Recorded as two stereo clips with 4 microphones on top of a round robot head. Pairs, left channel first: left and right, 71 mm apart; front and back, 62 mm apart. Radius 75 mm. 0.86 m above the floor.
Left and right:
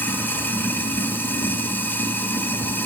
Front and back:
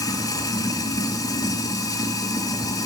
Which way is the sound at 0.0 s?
25° left.